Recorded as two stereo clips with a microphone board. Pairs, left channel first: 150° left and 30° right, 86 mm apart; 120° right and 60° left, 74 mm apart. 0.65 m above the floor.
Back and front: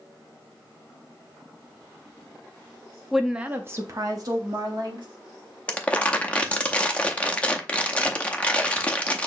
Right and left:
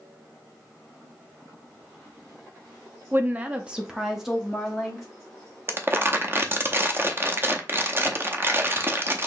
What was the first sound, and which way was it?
A woman speaking, 65° left.